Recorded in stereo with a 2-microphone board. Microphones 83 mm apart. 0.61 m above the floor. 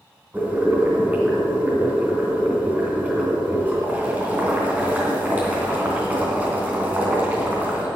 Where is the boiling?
20° right (ahead or behind), 3 m.